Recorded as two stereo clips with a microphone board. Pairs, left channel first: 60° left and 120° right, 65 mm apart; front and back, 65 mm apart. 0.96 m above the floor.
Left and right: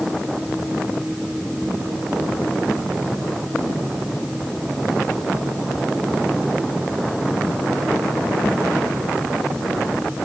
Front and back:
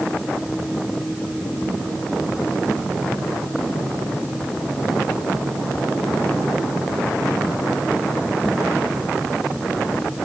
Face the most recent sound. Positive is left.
No sound to turn to.